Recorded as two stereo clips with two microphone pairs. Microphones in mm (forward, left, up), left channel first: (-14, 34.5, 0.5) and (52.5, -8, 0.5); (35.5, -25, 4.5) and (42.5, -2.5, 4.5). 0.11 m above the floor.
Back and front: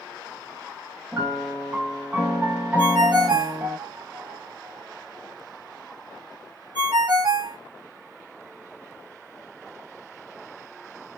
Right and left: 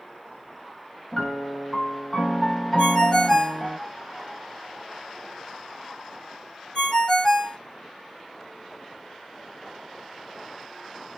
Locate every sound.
1.1 s a piano: 50° right, 0.8 m
2.8 s a ringtone: 40° right, 1.9 m